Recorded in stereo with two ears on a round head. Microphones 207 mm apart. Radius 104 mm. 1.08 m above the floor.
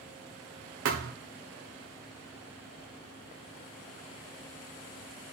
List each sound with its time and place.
0.8 s a thud: 55° right (ahead or behind), 1.5 m